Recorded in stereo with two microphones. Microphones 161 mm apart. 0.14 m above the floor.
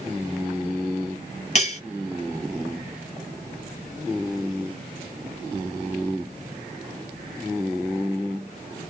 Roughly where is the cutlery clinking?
Left.